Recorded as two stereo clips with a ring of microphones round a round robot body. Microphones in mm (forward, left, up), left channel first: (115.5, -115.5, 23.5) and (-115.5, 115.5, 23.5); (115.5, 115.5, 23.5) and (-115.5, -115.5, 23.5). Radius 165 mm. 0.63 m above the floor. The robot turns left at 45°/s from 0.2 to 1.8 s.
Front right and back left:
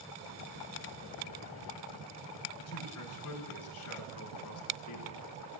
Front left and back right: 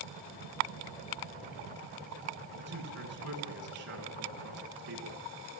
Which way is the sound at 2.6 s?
90° right.